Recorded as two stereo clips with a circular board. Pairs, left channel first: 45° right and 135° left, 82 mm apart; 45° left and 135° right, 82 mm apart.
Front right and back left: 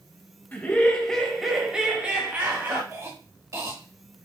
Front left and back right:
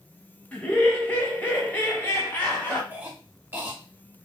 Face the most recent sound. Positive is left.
turn(degrees=165)